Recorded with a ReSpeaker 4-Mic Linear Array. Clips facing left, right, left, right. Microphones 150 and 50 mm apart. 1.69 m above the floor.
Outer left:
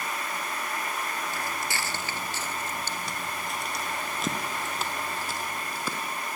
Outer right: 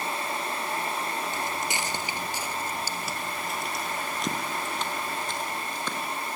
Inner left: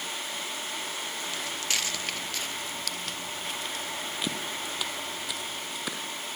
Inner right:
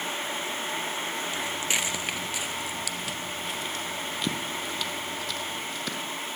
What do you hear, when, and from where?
1.3 s footsteps: 20° right (ahead or behind), 1.8 m; by 6.0 s 10° left (ahead or behind), 3.5 m